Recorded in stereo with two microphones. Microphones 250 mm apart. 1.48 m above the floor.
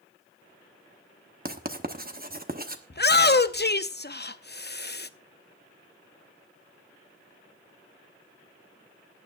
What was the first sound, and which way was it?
Writing, 35° right (ahead or behind).